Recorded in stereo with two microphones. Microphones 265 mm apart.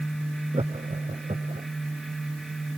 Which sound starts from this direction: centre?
Laughter, at 0.5 s.